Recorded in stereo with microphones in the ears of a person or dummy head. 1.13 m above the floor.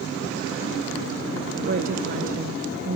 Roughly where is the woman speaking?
Right.